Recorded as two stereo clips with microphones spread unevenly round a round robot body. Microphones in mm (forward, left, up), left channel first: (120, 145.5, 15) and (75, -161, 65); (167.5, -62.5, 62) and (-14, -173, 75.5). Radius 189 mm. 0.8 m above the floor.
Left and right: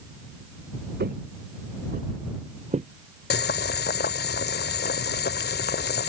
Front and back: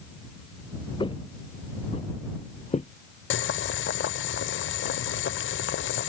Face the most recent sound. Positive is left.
turn(degrees=20)